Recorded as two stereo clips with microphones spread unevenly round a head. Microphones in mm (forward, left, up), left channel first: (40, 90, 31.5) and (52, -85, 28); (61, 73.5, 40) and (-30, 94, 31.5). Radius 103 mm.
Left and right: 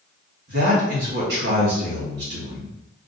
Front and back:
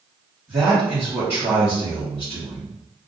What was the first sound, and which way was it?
A man speaking, 120° right.